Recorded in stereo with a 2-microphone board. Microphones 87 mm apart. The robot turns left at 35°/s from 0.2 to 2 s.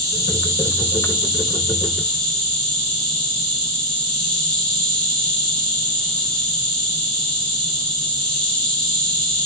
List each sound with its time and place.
0.0 s an insect: 130° right, 1.9 m; by 9.5 s 165° left, 1.9 m